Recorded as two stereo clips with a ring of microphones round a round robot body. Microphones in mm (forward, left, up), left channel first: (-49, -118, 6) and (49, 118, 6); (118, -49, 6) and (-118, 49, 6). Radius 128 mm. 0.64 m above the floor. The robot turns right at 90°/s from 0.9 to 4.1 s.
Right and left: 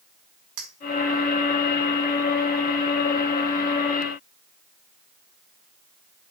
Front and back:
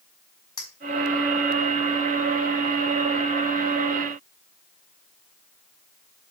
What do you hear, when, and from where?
0.6 s a clink: 55° left, 3.5 m